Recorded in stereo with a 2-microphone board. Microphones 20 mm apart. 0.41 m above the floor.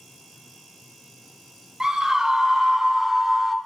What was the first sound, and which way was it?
A scream, 40° right (ahead or behind).